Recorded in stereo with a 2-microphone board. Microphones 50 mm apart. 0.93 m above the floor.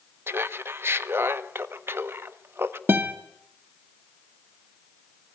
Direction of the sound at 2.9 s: 45° right (ahead or behind).